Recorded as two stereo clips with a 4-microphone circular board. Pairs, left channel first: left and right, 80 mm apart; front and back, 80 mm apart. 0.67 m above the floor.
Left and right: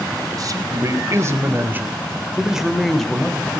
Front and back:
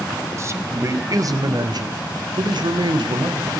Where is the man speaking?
125° right, 4 m; by 3.5 s 165° left, 3.5 m.